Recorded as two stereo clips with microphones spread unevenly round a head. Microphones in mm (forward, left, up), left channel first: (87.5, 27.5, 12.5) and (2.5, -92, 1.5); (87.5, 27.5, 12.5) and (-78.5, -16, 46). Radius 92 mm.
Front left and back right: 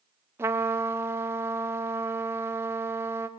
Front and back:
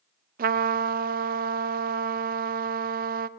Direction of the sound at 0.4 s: 155° left.